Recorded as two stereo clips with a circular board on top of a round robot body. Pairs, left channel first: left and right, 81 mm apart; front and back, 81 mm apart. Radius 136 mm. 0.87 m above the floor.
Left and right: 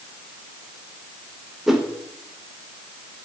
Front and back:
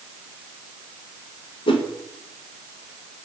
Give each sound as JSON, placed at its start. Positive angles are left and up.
{"t": 1.7, "sound": "a whoosh", "azimuth_deg": -5, "distance_m": 1.1}